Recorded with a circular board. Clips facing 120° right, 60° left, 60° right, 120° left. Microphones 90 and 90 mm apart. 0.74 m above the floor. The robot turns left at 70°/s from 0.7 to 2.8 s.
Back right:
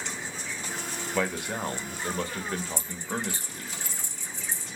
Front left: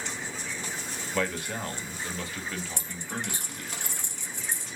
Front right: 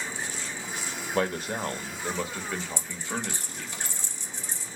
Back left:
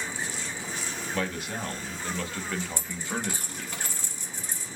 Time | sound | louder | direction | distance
1.1 | a man speaking | back right 1 dB, front right 5 dB | 40° right | 1.1 m
2.8 | a dropped coin | back right 3 dB, back left 1 dB | 85° left | 1.7 m